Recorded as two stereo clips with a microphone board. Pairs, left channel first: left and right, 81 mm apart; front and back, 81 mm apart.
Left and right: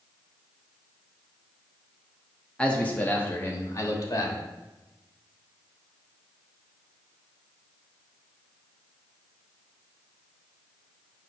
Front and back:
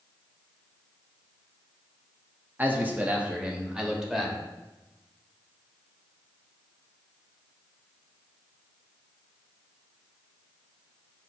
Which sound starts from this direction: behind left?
A man speaking, at 2.6 s.